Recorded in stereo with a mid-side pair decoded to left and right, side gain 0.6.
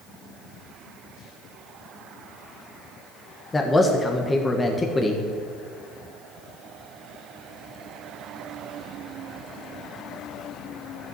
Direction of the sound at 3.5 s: 20° left.